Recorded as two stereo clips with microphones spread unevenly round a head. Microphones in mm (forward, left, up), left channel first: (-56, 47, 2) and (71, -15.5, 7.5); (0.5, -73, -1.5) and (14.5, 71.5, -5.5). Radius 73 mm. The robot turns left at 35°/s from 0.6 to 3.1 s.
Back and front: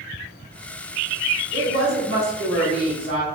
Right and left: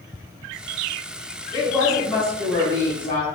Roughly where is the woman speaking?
Ahead.